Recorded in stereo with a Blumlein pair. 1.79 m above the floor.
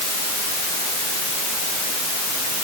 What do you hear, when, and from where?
Only background noise.